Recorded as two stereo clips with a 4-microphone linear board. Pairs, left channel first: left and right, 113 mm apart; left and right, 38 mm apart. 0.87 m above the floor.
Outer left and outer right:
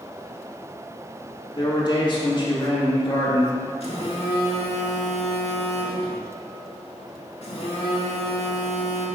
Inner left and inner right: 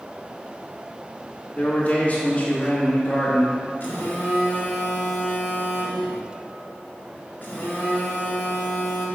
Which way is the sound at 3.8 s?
55° left (ahead or behind).